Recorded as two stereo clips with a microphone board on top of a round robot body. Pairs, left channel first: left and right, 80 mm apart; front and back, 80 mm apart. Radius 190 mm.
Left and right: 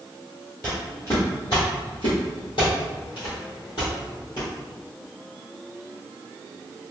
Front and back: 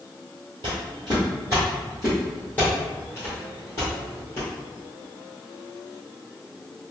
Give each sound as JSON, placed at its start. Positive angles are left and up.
{"t": 0.6, "sound": "footsteps", "azimuth_deg": 170, "distance_m": 1.1}